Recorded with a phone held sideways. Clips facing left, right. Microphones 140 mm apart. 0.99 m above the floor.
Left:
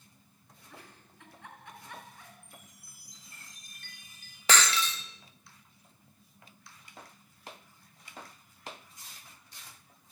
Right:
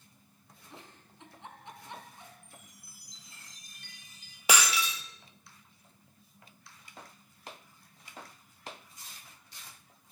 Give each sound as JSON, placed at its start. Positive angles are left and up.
{"t": 0.7, "sound": "a giggle", "side_deg": -20, "distance_m": 4.5}
{"t": 2.4, "sound": "a chime", "side_deg": 55, "distance_m": 6.5}
{"t": 4.5, "sound": "breaking glass", "side_deg": -10, "distance_m": 1.8}